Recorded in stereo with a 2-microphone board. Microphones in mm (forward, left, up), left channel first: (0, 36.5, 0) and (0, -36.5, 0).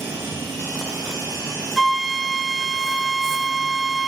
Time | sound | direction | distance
1.8 | a flute | centre (ahead or behind) | 0.8 m